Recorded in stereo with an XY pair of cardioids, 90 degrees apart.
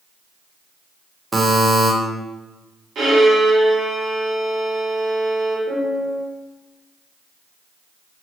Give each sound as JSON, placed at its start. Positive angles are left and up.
{"t": 1.3, "sound": "a buzzer", "azimuth_deg": -20, "distance_m": 0.7}
{"t": 3.0, "sound": "a violin", "azimuth_deg": -70, "distance_m": 1.5}
{"t": 5.7, "sound": "a piano", "azimuth_deg": -65, "distance_m": 1.7}